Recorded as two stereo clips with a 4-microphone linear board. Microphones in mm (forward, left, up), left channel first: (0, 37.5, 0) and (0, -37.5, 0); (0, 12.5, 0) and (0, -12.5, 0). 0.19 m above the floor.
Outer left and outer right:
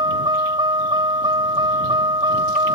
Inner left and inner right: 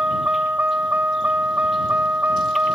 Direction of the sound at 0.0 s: 80° right.